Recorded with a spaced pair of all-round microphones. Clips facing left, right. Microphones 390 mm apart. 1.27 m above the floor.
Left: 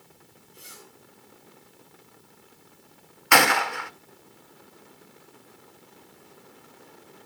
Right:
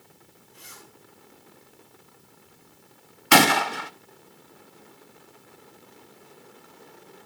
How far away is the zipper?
About 6 m.